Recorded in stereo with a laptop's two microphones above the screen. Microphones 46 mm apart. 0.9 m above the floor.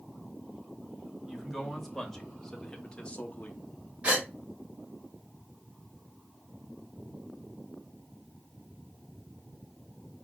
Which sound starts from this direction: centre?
A man speaking, at 1.2 s.